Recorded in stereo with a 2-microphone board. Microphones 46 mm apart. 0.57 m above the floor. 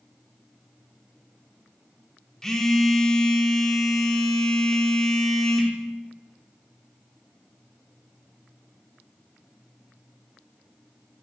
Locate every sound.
2.4 s a phone buzzing: 10° left (ahead or behind), 0.7 m